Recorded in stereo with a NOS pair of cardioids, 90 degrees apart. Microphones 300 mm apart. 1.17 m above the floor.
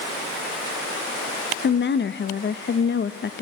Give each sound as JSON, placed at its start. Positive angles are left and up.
{"t": 1.6, "sound": "a woman speaking", "azimuth_deg": 35, "distance_m": 1.3}